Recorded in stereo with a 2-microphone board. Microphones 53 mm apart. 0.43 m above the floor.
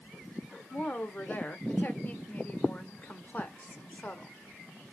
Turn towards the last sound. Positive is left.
turn(degrees=30)  # may be behind; listen again after turning